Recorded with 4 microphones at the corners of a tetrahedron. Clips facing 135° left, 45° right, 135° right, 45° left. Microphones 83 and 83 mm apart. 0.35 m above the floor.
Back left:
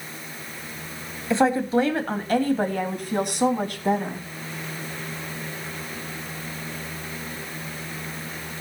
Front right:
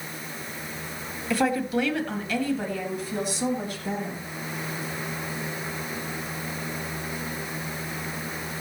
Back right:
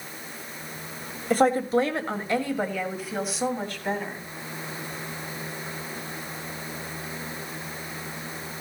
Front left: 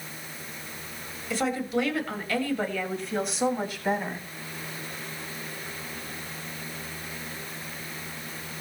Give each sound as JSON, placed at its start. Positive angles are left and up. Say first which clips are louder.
{"t": 1.3, "sound": "a woman speaking", "louder": "back left 4 dB, back right 7 dB", "azimuth_deg": -165, "distance_m": 2.5}